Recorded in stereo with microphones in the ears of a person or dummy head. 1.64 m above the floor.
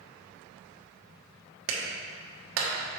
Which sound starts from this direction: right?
A clap, at 1.7 s.